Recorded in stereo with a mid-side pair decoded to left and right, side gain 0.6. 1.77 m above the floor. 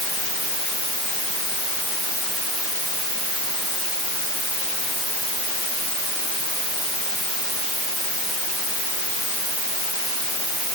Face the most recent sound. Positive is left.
No sound to turn to.